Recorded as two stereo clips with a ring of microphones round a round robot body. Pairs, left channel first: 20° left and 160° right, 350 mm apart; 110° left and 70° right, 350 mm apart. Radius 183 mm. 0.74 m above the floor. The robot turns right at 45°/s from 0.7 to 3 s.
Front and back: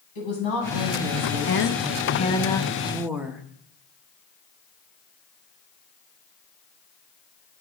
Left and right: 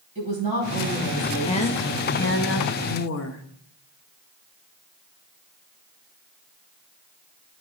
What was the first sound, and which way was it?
A woman speaking, 5° left.